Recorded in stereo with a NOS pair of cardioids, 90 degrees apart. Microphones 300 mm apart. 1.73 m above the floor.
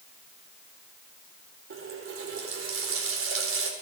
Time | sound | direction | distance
1.7 | a running tap | 45° right | 4.5 m